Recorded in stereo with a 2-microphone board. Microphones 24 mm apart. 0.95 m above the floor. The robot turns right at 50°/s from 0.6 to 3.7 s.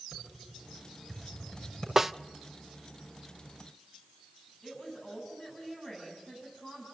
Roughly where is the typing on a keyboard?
Right.